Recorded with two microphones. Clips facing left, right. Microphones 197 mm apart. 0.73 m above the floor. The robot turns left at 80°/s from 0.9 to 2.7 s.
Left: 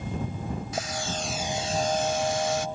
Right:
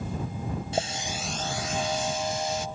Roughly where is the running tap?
Behind right.